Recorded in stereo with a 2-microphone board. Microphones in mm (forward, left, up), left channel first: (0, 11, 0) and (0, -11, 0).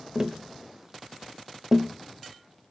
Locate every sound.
0.1 s tapping: 20° right (ahead or behind), 0.5 m